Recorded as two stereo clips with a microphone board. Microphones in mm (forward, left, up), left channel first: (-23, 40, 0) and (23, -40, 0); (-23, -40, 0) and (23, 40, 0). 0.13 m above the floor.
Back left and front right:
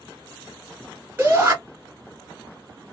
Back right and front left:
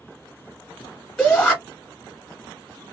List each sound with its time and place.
1.2 s a shout: 85° right, 1.5 m